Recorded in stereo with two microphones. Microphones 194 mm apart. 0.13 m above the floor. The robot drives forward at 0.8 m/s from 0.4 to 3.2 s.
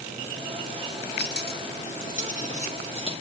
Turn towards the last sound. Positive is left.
turn(degrees=30)  # may be behind; listen again after turning